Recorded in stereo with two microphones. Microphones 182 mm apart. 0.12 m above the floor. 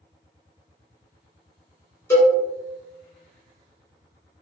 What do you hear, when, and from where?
2.1 s a cowbell: 15° left (ahead or behind), 1.6 m